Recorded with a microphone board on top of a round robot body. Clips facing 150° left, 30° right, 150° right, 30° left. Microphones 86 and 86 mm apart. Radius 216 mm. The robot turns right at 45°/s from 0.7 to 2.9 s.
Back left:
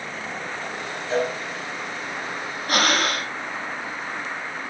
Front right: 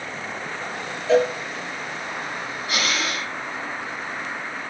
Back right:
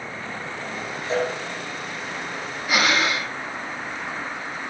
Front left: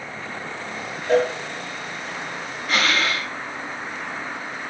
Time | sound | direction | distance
1.1 | a cowbell | 15° right | 2.5 m
2.7 | breathing | 130° left | 1.7 m